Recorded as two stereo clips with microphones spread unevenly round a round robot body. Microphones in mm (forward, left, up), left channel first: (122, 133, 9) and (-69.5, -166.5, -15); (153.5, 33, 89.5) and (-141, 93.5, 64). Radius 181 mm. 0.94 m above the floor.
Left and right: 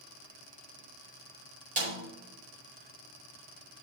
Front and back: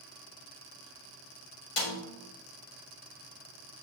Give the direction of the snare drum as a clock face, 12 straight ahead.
2 o'clock.